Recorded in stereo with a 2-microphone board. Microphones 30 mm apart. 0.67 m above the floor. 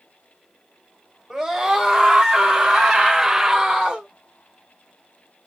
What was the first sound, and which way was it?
A scream, 10° right (ahead or behind).